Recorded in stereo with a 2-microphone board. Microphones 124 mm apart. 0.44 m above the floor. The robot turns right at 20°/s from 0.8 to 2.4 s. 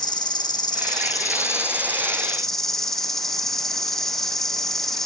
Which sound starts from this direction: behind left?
An insect, at 0.0 s.